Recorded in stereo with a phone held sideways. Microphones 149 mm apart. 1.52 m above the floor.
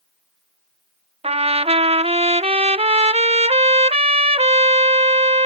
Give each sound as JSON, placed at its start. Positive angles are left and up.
{"t": 1.2, "sound": "a trumpet", "side_deg": -40}